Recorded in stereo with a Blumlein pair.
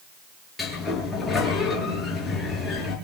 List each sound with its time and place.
0.6 s a sliding door: 10° left, 8 m